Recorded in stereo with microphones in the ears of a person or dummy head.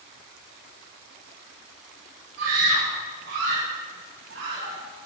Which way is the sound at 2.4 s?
80° right.